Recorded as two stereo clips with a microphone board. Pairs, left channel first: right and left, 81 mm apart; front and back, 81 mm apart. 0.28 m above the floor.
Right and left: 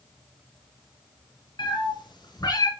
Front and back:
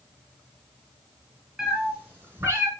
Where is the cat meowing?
105° right, 2.5 m; by 2.7 s 130° right, 1.6 m.